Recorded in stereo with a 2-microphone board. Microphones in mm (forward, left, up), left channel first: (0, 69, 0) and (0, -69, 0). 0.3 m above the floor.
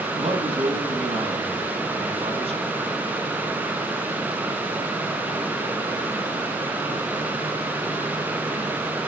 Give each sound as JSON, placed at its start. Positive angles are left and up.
{"t": 0.1, "sound": "a man speaking", "side_deg": -45, "distance_m": 2.0}